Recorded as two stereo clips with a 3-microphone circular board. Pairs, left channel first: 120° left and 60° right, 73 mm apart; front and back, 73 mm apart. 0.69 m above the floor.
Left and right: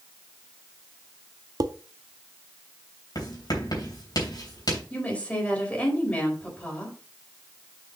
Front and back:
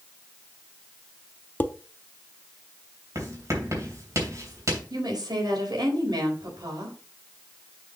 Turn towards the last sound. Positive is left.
turn(degrees=-170)